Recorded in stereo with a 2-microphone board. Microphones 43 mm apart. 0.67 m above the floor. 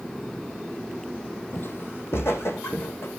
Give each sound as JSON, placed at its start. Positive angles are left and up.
{"t": 1.5, "sound": "footsteps", "side_deg": 55, "distance_m": 1.1}